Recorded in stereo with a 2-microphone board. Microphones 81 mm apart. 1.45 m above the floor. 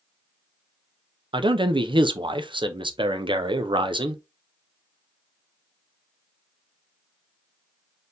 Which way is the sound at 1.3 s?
80° right.